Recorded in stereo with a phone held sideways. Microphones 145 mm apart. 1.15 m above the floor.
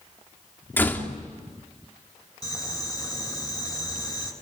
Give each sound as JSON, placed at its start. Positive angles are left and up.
{"t": 0.8, "sound": "a door slam", "side_deg": 15, "distance_m": 2.5}
{"t": 2.4, "sound": "boiling", "side_deg": 25, "distance_m": 7.0}